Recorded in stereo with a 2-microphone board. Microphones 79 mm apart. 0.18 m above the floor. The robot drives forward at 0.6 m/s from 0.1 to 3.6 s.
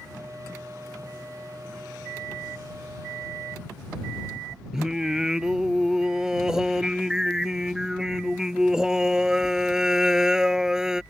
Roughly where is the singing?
Centre.